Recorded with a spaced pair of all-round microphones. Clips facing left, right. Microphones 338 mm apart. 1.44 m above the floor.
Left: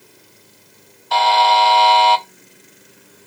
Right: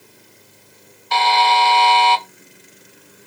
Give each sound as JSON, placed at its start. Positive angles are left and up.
{"t": 1.1, "sound": "a buzzer", "side_deg": -35, "distance_m": 0.9}